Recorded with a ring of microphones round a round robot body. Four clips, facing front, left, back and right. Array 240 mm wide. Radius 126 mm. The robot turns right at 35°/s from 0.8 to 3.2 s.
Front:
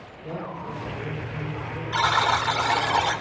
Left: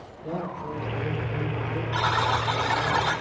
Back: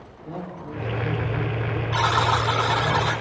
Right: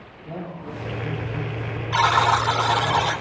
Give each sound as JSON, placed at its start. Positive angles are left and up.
{"t": 0.2, "sound": "a man speaking", "azimuth_deg": 65, "distance_m": 9.0}
{"t": 1.9, "sound": "a buzzer", "azimuth_deg": -90, "distance_m": 2.5}